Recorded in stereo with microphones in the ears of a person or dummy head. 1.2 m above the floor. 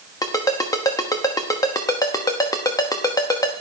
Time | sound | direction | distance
0.2 | a ringtone | 20° left (ahead or behind) | 1.0 m